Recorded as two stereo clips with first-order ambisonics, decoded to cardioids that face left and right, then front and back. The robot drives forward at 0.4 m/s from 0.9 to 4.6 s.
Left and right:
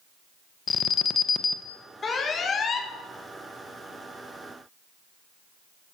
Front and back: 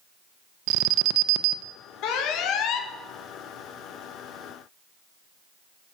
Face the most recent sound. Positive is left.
turn(degrees=95)